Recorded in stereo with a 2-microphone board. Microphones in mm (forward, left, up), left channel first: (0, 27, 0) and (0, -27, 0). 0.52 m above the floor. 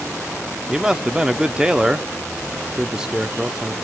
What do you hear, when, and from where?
0.7 s a man speaking: 10° right (ahead or behind), 0.7 m